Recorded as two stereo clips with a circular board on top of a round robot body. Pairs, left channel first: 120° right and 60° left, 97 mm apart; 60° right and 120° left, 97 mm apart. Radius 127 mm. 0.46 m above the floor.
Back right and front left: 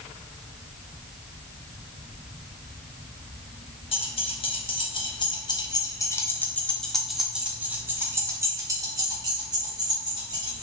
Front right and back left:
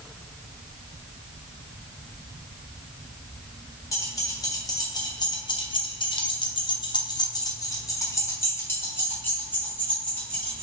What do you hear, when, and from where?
3.9 s keys jangling: 115° right, 1.8 m; by 10.6 s 15° left, 2.5 m